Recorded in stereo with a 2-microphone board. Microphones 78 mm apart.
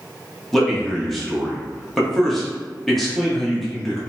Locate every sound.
0.5 s a man speaking: centre (ahead or behind), 0.9 m